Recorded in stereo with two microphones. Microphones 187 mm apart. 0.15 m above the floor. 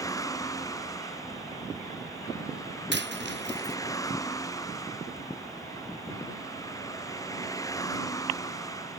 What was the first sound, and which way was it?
A vehicle, 15° left (ahead or behind).